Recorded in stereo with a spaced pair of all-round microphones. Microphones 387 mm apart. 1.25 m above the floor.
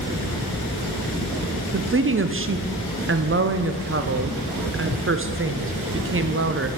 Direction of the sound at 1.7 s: 35° right (ahead or behind).